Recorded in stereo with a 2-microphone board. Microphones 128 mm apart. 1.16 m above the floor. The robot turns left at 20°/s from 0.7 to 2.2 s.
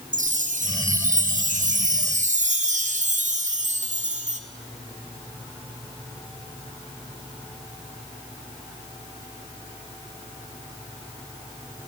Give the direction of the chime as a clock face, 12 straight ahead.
3 o'clock.